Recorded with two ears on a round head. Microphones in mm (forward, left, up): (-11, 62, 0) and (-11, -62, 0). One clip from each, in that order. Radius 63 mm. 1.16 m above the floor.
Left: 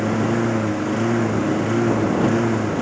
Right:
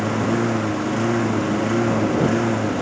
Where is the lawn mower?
10° right (ahead or behind).